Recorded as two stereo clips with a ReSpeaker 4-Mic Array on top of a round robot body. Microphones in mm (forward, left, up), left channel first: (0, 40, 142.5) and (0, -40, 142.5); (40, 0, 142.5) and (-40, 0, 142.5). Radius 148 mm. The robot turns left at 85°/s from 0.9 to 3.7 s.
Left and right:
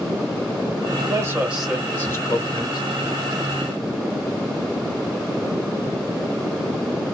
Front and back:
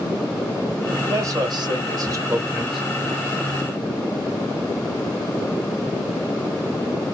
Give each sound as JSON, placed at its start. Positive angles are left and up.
{"t": 1.1, "sound": "a man speaking", "azimuth_deg": -130, "distance_m": 1.8}